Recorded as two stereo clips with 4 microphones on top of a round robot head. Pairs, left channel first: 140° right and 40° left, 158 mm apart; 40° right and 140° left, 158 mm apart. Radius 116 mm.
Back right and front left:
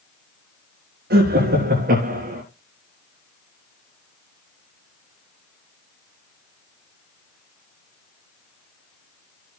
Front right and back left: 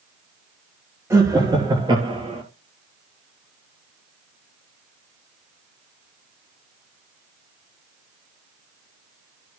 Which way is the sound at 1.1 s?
65° left.